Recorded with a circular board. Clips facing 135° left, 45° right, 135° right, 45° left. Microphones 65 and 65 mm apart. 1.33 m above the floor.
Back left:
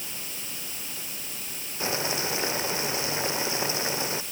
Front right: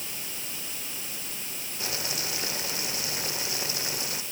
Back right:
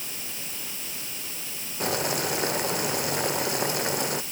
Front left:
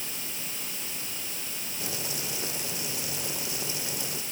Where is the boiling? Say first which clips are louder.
Back left 7 dB, back right 11 dB; 165° right.